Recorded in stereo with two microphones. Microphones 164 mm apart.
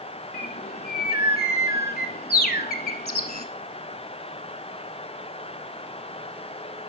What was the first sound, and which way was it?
A bird, 70° left (ahead or behind).